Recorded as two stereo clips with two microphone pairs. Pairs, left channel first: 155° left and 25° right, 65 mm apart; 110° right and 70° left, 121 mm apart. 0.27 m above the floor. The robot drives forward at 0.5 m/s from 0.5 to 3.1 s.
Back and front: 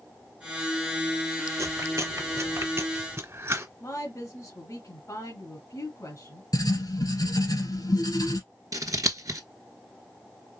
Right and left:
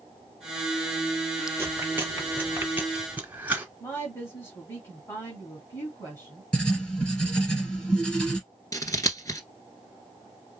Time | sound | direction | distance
1.6 | chewing | straight ahead | 2 m
3.8 | a woman speaking | 175° right | 2 m
6.5 | writing | 170° left | 2 m
8.7 | scissors | 50° right | 0.9 m